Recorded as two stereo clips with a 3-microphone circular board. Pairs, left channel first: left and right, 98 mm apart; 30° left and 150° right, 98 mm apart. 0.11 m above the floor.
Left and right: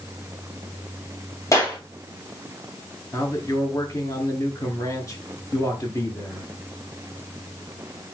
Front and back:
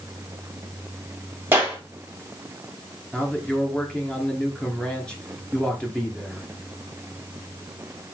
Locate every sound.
1.5 s a clap: 145° left, 2.5 m
3.1 s a man speaking: 105° left, 2.0 m